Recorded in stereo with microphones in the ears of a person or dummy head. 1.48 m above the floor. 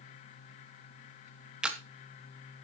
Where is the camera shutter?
5° right (ahead or behind), 1.3 m.